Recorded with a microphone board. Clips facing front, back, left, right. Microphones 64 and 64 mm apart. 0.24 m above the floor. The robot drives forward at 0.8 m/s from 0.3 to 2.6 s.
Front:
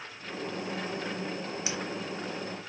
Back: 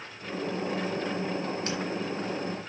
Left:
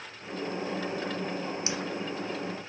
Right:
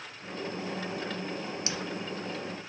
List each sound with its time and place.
1.7 s laughter: 70° left, 1.0 m; by 1.8 s 80° left, 1.0 m